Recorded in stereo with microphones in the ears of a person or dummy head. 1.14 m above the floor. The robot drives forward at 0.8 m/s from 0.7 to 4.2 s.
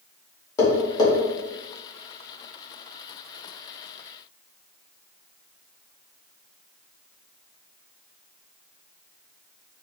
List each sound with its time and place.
0.6 s tapping: 20° left (ahead or behind), 1.7 m